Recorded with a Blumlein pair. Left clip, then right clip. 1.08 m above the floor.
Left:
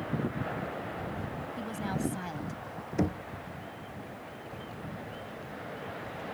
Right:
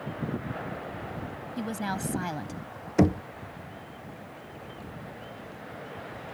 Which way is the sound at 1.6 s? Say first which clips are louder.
Right 4 dB; 70° right.